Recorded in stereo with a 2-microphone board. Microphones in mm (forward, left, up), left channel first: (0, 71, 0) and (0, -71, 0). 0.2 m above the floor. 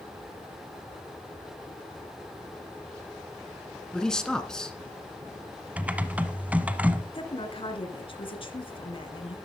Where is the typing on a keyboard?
10° right (ahead or behind), 1.0 m.